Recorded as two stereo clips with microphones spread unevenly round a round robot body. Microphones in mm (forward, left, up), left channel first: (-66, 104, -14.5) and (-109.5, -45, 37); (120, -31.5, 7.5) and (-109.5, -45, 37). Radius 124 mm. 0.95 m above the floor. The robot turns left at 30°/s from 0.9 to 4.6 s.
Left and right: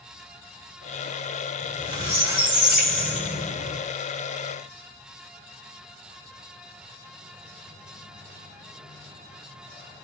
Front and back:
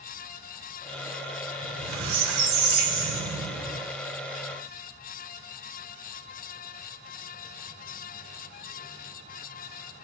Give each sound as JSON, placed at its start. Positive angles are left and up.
{"t": 1.6, "sound": "a squeak", "azimuth_deg": -160, "distance_m": 3.0}